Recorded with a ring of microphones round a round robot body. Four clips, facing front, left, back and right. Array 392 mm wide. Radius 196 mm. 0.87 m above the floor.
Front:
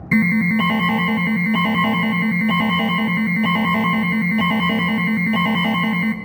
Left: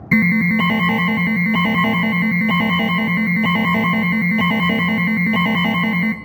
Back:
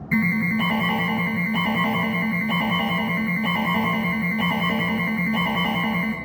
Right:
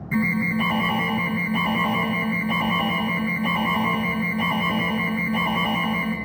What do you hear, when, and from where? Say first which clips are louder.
0.1 s an alarm: left 7 dB, front 5 dB; 65° left, 0.6 m